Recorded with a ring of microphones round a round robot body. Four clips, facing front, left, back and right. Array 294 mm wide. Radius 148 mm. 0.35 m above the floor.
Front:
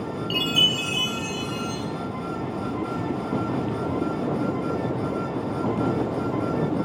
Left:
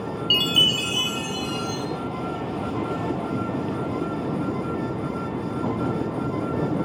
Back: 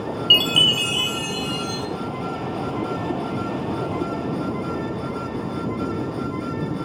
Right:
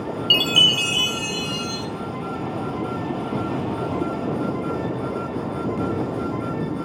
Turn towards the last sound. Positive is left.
turn(degrees=-170)